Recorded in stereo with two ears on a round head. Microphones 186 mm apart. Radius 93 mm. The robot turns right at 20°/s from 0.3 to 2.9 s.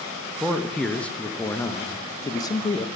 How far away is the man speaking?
About 0.5 m.